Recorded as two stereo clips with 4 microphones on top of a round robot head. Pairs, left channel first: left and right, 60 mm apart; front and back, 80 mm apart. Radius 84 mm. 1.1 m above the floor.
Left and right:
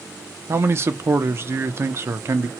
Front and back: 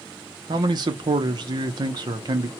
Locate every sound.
0.5 s a man speaking: 140° right, 0.6 m